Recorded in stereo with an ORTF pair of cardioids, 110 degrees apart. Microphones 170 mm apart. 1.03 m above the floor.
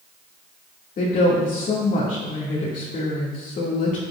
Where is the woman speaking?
50° left, 2 m.